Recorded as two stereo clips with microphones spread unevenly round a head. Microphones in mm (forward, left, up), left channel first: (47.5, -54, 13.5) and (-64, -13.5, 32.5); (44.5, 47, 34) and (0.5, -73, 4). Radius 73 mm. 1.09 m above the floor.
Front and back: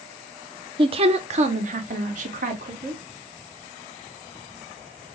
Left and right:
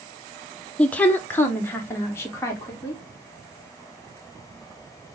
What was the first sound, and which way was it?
A woman speaking, 165° left.